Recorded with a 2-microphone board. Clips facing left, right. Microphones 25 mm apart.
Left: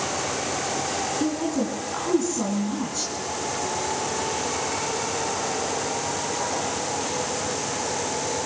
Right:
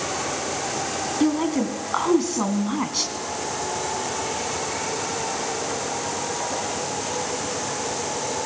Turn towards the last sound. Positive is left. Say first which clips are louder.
# right 7 dB
turn(degrees=-60)  # may be behind; listen again after turning